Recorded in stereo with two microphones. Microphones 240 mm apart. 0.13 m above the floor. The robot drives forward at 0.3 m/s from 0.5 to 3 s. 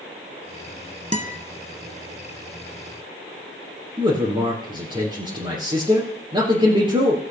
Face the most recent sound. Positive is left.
turn(degrees=-20)  # may be behind; listen again after turning